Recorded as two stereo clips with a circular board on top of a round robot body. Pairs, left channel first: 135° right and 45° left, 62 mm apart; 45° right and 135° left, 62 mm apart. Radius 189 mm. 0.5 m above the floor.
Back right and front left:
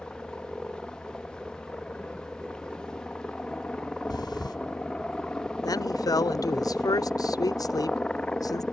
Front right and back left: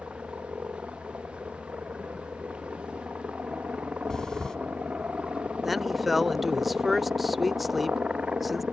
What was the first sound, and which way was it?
A helicopter, 170° left.